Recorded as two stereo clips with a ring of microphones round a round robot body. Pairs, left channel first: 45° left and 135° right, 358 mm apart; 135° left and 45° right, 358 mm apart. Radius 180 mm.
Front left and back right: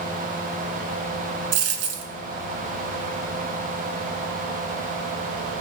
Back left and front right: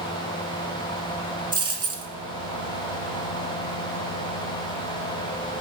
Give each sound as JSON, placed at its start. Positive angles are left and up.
{"t": 1.5, "sound": "a dropped coin", "azimuth_deg": -125, "distance_m": 1.7}